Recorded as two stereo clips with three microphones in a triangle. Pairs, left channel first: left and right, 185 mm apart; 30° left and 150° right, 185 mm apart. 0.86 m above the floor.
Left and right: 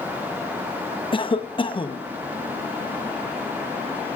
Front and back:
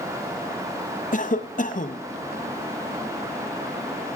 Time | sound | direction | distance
1.1 | a cough | 40° left | 0.8 m